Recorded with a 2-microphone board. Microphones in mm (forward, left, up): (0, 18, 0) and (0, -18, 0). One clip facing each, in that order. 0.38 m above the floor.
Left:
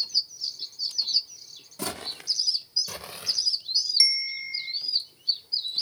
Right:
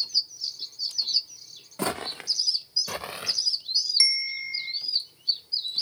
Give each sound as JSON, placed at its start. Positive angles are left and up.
{"t": 1.8, "sound": "footsteps", "side_deg": -40, "distance_m": 1.3}
{"t": 4.0, "sound": "a bell", "side_deg": -10, "distance_m": 0.6}